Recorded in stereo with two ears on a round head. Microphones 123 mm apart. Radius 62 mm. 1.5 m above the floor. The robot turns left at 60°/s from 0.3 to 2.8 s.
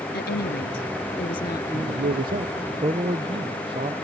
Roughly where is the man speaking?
Right.